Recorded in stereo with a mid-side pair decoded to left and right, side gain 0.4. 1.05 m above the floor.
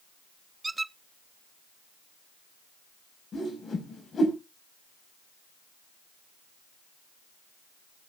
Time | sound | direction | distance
0.6 | a squeak | 25° right | 0.5 m
3.3 | a whoosh | 50° left | 5 m